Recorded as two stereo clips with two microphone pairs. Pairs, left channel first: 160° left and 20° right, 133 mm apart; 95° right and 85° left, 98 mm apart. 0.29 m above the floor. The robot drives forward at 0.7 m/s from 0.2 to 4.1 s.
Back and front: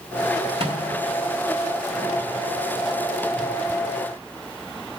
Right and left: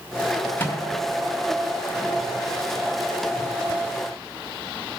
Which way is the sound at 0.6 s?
30° right.